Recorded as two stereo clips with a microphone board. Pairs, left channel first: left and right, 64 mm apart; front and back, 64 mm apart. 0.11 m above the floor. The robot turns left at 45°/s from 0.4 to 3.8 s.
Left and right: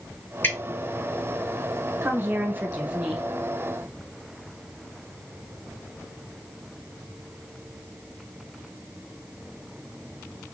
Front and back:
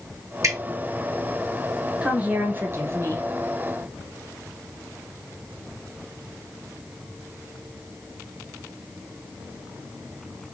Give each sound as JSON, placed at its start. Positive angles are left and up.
{"t": 0.4, "sound": "dripping", "azimuth_deg": 150, "distance_m": 2.5}
{"t": 2.0, "sound": "a woman speaking", "azimuth_deg": -115, "distance_m": 1.9}